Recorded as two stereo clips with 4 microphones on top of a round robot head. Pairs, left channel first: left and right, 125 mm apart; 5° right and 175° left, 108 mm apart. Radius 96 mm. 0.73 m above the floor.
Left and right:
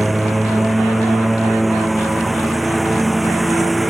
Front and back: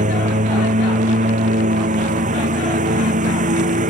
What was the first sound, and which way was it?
A lawn mower, straight behind.